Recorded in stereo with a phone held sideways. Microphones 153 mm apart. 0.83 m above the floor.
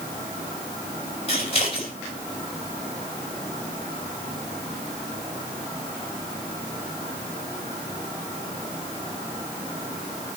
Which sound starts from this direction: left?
Scissors, at 1.3 s.